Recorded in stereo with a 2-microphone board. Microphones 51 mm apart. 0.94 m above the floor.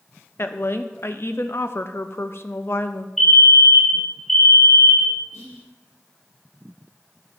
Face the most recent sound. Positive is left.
turn(degrees=65)  # may be behind; listen again after turning